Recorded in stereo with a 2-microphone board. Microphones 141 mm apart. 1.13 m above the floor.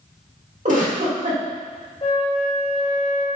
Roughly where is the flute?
Left.